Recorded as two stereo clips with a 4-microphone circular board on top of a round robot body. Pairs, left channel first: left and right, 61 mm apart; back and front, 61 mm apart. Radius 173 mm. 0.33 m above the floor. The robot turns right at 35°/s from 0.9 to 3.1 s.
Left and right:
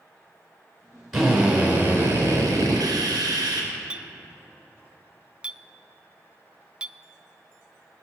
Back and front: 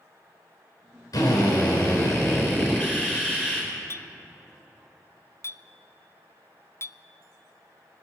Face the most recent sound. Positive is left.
turn(degrees=-160)